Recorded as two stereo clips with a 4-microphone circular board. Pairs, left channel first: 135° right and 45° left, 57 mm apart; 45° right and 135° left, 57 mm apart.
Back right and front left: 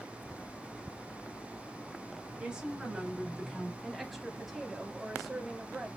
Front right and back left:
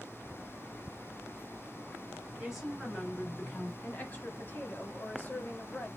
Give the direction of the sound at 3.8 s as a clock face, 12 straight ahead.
2 o'clock.